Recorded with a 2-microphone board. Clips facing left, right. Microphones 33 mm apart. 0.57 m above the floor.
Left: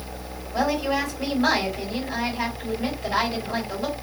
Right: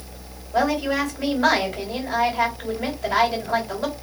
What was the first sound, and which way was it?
A woman speaking, 65° right (ahead or behind).